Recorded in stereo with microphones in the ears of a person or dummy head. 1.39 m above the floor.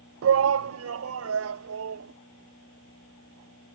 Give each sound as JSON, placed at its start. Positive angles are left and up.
{"t": 0.2, "sound": "a shout", "side_deg": -80}